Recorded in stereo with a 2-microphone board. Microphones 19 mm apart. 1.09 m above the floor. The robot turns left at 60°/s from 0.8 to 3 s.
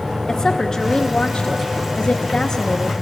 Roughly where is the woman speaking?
Behind left.